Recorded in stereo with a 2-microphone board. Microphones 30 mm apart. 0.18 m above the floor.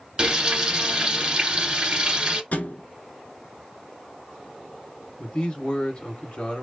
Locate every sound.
0.2 s frying: 25° right (ahead or behind), 1.4 m
2.5 s a thud: 70° left (ahead or behind), 0.5 m
5.2 s a man speaking: 35° left (ahead or behind), 1.8 m